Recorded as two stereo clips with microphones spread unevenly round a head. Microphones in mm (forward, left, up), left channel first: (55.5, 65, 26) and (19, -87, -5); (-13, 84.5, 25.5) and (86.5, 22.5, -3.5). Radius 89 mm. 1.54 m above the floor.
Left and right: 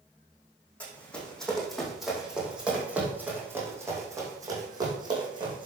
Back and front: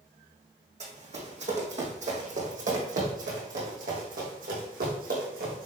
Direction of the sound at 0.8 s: Straight ahead.